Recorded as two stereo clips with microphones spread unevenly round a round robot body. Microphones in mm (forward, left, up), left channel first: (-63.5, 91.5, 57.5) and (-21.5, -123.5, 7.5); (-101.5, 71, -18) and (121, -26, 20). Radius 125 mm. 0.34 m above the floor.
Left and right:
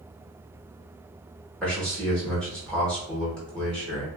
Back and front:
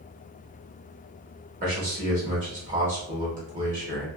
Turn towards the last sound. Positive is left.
turn(degrees=-15)